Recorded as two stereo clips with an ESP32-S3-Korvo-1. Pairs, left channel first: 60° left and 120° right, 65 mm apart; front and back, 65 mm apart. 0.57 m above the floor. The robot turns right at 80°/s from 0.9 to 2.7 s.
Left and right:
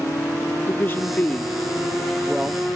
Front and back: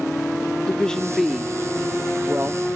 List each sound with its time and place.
0.7 s a woman speaking: 70° left; by 2.6 s 150° right